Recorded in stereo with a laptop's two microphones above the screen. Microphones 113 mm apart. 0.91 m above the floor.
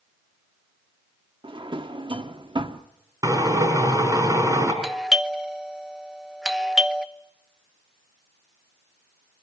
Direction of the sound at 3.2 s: 30° right (ahead or behind).